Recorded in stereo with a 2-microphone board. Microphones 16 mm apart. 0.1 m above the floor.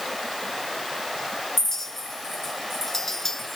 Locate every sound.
1.6 s a clink: 20° left (ahead or behind), 0.8 m